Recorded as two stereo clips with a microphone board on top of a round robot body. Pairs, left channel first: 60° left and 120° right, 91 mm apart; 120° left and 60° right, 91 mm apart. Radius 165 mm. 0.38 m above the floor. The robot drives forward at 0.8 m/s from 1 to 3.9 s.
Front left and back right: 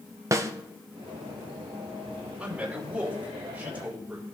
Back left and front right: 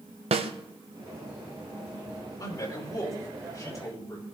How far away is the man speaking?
About 3 m.